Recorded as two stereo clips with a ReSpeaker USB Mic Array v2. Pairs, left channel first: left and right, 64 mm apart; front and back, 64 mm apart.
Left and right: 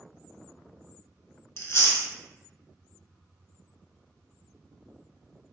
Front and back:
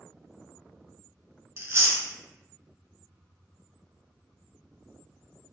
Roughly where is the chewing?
Behind left.